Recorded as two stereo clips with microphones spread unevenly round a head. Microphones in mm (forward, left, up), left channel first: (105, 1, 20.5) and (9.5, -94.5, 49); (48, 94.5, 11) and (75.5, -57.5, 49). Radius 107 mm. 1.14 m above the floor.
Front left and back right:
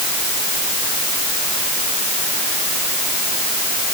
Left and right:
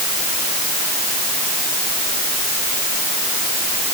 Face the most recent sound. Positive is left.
No sound to turn to.